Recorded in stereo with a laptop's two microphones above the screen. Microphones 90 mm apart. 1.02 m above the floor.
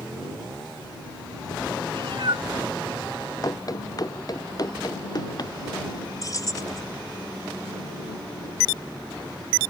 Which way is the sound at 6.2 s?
40° left (ahead or behind).